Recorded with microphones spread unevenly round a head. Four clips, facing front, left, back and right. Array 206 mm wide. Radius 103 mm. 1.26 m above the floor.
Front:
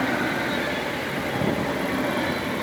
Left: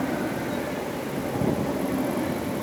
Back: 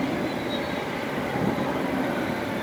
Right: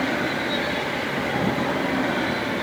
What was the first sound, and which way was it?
Only background noise.